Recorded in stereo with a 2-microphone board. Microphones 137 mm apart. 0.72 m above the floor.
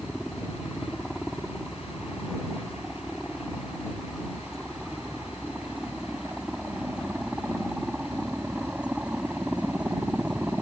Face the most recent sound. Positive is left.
turn(degrees=-10)  # may be behind; listen again after turning